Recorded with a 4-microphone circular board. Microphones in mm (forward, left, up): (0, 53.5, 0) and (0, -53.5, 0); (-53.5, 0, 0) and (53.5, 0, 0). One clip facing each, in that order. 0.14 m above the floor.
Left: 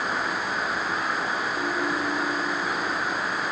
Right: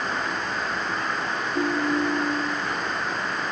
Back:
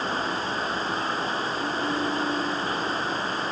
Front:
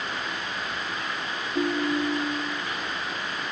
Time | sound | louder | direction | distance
1.6 | a ringtone | right 7 dB, front 7 dB | 40° right | 2.5 m